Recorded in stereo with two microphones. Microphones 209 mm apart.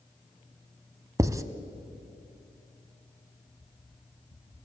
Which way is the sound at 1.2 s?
15° right (ahead or behind).